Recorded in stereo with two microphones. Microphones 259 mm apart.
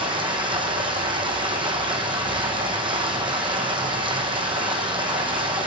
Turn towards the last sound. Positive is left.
turn(degrees=-20)  # may be behind; listen again after turning